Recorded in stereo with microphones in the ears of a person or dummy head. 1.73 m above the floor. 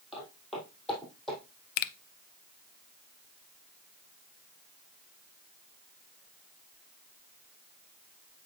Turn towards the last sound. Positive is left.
turn(degrees=55)  # may be behind; listen again after turning